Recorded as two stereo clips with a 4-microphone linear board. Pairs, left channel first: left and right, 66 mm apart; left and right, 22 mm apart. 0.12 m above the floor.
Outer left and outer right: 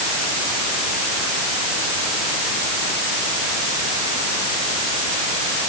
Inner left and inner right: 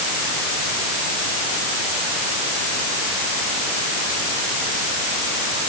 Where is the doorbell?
I don't hear a doorbell.